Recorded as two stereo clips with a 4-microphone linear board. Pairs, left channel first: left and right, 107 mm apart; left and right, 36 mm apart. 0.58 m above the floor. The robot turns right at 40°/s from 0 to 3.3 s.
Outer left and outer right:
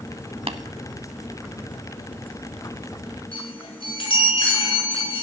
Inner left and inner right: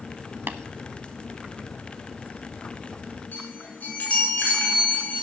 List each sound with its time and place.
0.5 s tapping: 65° right (ahead or behind), 0.8 m; by 0.6 s 70° right (ahead or behind), 0.8 m
3.3 s a chime: 60° left (ahead or behind), 6.5 m